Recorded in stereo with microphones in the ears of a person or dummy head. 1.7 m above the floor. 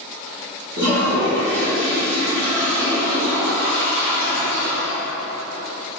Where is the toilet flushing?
45° right (ahead or behind), 1.4 m.